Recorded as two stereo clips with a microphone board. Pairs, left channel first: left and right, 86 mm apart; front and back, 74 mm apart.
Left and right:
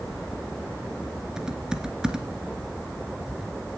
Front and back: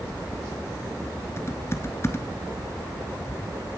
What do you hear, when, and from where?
1.4 s typing on a keyboard: 15° right, 1.4 m